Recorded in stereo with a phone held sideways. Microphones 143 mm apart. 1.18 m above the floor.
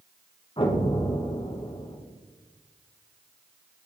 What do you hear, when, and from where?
0.6 s an explosion: 35° left (ahead or behind), 1.4 m